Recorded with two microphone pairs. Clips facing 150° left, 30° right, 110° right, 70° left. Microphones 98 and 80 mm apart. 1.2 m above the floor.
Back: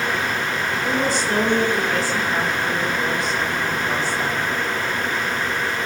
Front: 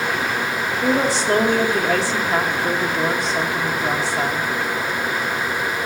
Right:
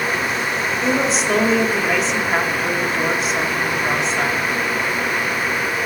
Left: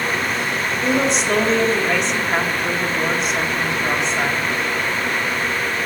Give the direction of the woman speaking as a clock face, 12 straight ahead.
1 o'clock.